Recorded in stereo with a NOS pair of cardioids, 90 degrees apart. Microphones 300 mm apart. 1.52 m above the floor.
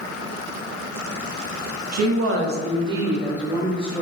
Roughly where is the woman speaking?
Ahead right.